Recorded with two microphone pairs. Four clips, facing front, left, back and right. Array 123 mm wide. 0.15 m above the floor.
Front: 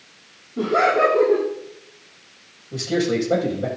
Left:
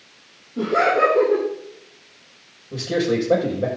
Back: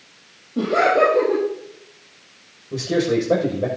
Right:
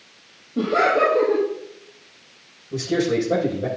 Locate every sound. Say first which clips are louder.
0.6 s laughter: even, back 1 dB; 160° right, 4.5 m
2.7 s a man speaking: even, back 2 dB; 150° left, 7 m